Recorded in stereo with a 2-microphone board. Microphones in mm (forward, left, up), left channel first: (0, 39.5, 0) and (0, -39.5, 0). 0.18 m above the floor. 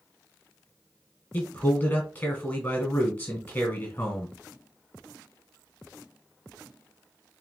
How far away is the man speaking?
About 1.3 m.